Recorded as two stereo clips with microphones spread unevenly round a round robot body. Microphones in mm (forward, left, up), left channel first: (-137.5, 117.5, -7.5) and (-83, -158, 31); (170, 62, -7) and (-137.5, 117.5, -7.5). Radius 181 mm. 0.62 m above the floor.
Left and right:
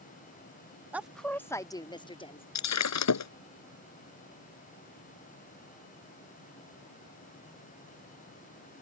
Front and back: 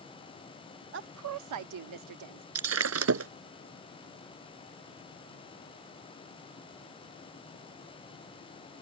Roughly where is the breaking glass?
Behind left.